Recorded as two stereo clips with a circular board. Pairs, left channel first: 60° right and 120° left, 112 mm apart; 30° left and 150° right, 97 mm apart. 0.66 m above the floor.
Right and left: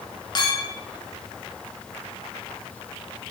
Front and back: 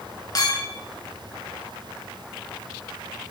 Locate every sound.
0.3 s a clink: 15° right, 1.1 m